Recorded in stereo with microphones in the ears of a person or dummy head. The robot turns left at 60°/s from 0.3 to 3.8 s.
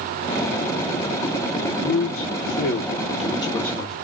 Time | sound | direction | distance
1.8 | a man speaking | 120° left | 0.8 m